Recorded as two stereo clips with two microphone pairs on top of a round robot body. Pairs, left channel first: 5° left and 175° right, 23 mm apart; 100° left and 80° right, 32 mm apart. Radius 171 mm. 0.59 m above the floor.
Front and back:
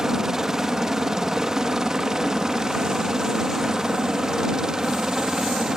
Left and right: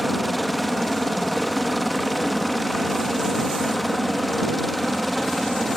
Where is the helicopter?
165° right.